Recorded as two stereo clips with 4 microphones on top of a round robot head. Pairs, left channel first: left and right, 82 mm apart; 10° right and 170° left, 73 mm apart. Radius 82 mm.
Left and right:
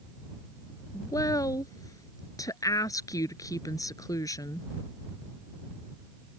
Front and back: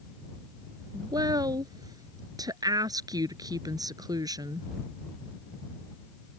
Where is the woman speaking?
140° left.